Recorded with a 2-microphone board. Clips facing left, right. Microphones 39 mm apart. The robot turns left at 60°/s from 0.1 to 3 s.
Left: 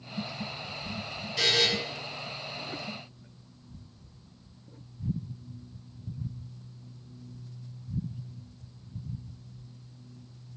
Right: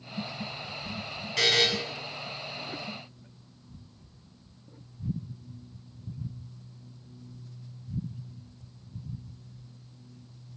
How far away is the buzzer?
About 0.8 m.